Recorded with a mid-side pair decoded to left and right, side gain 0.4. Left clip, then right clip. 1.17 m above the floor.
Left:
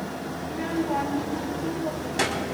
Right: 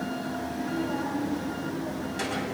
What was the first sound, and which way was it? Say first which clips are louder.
A child speaking: left 6 dB; 60° left.